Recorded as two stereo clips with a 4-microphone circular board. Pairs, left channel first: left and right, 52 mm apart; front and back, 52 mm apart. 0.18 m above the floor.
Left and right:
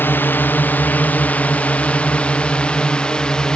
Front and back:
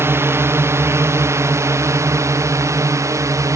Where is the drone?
145° left; by 3.6 s 165° left.